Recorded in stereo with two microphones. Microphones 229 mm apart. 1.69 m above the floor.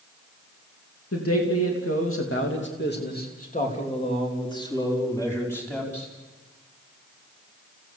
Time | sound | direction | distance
1.1 | a man speaking | 85° left | 3 m